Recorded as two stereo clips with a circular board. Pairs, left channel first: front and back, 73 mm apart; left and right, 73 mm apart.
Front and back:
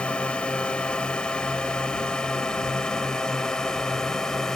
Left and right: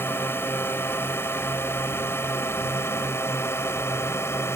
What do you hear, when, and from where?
0.0 s a drone: 65° left; by 4.5 s 80° left